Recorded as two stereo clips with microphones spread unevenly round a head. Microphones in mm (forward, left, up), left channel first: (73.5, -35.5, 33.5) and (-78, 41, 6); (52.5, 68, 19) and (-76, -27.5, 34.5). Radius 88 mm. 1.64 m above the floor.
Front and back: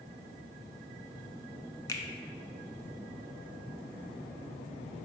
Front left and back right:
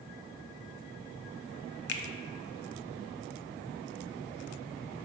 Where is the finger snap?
35° left, 0.5 m.